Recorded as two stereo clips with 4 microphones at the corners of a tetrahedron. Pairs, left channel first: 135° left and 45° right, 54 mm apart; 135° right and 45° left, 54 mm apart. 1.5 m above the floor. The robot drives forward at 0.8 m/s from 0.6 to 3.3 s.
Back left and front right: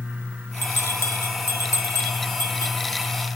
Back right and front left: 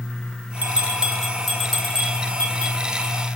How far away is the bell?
About 1.0 m.